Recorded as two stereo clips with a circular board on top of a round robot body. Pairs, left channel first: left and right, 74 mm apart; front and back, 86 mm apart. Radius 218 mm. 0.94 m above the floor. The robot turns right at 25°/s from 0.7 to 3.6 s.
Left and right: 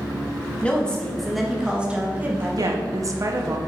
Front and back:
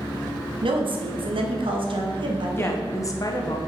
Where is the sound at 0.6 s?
165° left, 1.3 m; by 3.6 s 125° right, 1.3 m.